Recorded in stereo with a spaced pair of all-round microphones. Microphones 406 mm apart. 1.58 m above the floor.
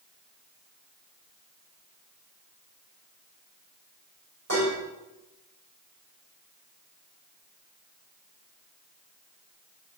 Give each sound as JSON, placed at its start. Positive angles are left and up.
{"t": 4.5, "sound": "dishes clattering", "side_deg": -40, "distance_m": 5.5}